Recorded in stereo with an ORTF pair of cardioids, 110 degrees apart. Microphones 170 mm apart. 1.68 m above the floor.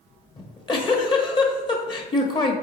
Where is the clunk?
I don't hear a clunk.